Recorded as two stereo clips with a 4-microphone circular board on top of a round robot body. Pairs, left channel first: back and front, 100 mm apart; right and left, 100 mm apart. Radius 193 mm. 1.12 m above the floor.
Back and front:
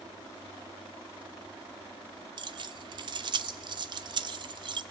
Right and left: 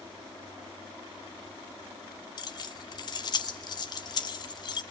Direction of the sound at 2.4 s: 45° right.